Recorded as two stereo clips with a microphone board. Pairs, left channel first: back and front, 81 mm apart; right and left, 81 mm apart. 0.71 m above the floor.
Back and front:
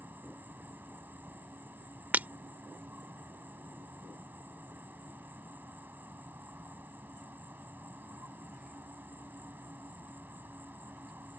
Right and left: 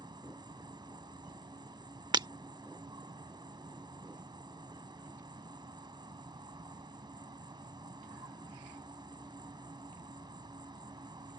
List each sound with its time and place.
0.0 s an insect: 65° left
2.1 s breaking glass: 70° left